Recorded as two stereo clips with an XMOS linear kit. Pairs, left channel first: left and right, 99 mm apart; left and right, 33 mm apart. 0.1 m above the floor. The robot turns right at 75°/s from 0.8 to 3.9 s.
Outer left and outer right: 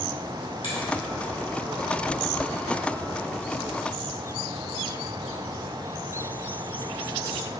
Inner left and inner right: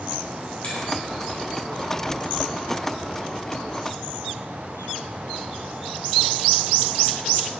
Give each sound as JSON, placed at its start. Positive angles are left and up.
{"t": 0.6, "sound": "a finger snap", "side_deg": 55, "distance_m": 1.8}